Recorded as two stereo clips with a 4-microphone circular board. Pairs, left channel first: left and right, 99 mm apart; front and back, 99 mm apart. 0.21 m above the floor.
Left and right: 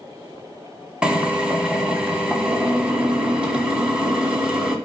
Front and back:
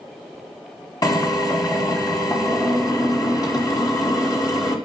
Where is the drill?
15° right, 1.8 m.